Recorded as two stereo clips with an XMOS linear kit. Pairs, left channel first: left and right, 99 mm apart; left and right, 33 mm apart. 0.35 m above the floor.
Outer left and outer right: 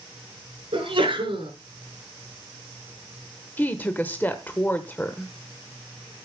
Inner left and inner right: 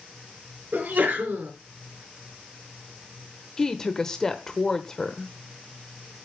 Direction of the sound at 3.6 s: 15° left (ahead or behind).